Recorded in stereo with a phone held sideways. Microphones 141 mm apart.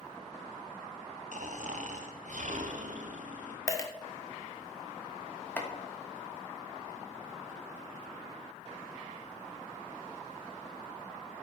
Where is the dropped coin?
20° left (ahead or behind), 0.9 m.